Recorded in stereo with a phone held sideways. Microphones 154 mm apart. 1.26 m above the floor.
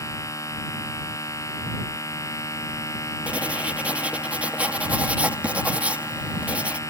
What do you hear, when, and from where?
0.0 s a machine running: 20° left (ahead or behind)
3.3 s writing: 10° right (ahead or behind)